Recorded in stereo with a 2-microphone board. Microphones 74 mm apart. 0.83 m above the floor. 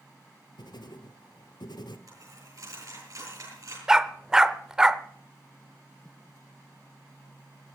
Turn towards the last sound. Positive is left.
turn(degrees=-10)  # may be behind; listen again after turning